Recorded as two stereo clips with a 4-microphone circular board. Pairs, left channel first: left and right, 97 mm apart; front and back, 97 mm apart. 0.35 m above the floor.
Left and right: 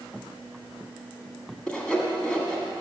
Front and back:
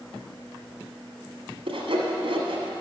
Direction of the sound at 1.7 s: 170° left.